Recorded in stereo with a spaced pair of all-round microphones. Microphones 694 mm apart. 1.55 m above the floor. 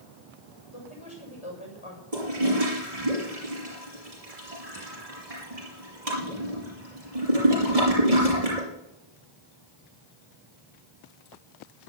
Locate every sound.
0.7 s a woman speaking: 45° left (ahead or behind), 7 m
2.1 s a toilet flushing: 50° right (ahead or behind), 5.5 m